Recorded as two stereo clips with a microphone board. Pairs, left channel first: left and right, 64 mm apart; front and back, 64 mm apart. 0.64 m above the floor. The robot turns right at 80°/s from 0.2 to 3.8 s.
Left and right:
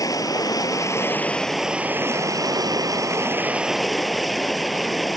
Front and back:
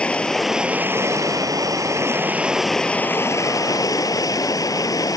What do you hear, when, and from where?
0.0 s running water: 70° left; by 5.2 s straight ahead